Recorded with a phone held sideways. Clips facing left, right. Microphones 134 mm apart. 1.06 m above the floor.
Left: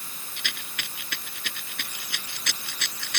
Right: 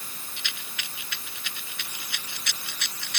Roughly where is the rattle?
Left.